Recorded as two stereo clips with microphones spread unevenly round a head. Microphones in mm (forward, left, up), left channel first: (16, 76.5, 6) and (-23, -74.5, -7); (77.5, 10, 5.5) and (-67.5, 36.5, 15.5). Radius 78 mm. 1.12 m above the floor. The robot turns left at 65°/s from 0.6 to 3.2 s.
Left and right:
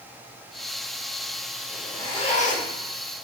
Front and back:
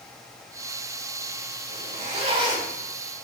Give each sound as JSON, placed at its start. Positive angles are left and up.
{"t": 1.7, "sound": "a zipper", "azimuth_deg": 160, "distance_m": 1.5}